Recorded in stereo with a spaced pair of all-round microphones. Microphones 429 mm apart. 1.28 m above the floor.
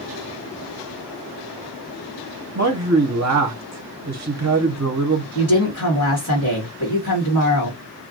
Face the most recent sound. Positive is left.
turn(degrees=45)  # may be behind; listen again after turning